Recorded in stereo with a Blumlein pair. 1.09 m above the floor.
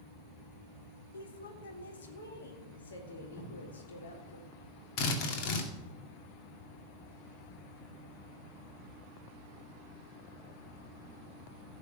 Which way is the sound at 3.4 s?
50° left.